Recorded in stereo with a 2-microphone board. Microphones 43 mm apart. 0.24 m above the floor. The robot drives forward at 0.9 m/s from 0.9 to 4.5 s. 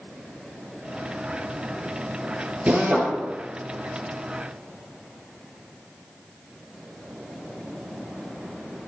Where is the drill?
40° right (ahead or behind), 5 m; by 3.1 s 35° right (ahead or behind), 5 m.